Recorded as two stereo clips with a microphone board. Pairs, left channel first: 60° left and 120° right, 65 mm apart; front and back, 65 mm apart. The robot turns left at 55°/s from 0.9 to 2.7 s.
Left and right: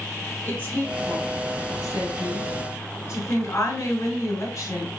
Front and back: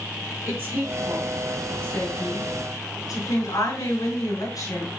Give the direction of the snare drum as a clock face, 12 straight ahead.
No snare drum in this recording.